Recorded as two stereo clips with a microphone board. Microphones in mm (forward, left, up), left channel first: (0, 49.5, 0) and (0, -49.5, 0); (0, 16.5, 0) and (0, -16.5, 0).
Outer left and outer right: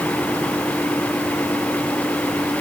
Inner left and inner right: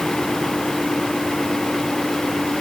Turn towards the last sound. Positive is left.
No sound to turn to.